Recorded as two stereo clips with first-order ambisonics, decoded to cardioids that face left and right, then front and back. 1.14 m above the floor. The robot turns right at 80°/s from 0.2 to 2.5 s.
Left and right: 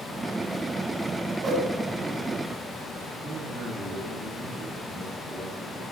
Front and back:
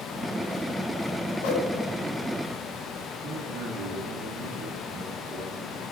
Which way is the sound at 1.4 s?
20° right.